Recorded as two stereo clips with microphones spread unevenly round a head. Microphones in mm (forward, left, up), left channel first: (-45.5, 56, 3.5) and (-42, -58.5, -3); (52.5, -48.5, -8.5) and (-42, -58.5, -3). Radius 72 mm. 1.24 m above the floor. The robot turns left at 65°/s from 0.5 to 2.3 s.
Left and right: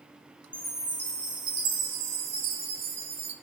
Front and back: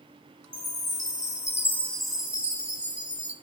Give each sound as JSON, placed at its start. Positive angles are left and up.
{"t": 0.5, "sound": "a chime", "azimuth_deg": 15, "distance_m": 1.6}